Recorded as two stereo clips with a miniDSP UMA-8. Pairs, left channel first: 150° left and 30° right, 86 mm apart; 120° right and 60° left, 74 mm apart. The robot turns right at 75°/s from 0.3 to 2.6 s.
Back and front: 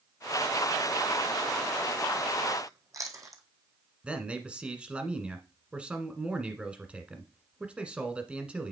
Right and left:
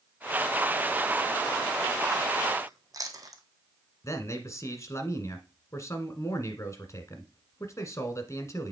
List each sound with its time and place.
2.7 s chewing: 20° left, 1.2 m
4.0 s a man speaking: 100° right, 1.4 m